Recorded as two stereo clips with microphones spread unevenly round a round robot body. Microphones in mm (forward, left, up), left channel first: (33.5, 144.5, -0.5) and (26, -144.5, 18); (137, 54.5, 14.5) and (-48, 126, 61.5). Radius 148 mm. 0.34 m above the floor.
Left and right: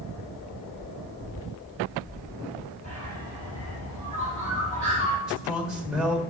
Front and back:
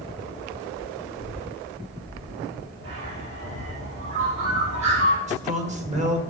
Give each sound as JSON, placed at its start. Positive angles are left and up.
{"t": 2.8, "sound": "a bird", "azimuth_deg": 155, "distance_m": 5.5}
{"t": 5.3, "sound": "a man speaking", "azimuth_deg": 175, "distance_m": 1.5}